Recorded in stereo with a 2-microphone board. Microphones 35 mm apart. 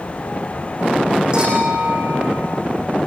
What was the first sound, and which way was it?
A clink, 25° right (ahead or behind).